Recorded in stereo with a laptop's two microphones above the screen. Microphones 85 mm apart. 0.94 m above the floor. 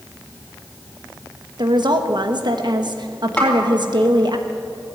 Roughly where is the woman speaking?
Right.